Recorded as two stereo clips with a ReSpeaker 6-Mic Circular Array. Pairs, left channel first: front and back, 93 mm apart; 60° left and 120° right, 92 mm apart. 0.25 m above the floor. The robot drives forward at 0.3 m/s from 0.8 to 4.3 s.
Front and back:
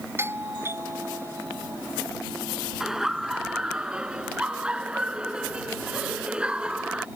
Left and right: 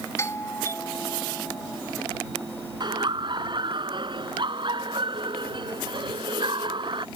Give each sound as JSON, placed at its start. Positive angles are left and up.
{"t": 0.2, "sound": "a doorbell", "azimuth_deg": 115}
{"t": 2.8, "sound": "laughter", "azimuth_deg": -95}